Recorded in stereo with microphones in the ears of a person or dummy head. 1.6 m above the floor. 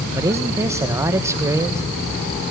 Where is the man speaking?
20° right (ahead or behind), 1.9 m.